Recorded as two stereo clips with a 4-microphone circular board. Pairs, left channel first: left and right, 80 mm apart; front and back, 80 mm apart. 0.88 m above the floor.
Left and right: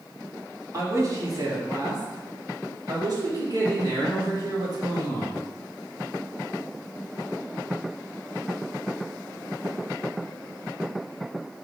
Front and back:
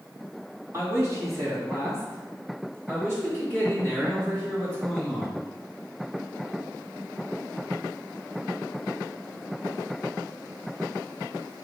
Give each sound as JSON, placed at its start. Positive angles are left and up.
{"t": 0.7, "sound": "a man speaking", "azimuth_deg": -130, "distance_m": 2.0}